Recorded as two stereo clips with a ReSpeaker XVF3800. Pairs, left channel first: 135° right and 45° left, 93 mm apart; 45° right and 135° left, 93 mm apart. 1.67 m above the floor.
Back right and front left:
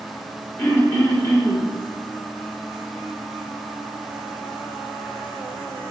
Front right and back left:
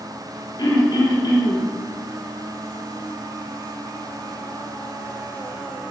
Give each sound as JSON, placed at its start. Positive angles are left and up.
{"t": 0.6, "sound": "throat clearing", "azimuth_deg": -75, "distance_m": 1.9}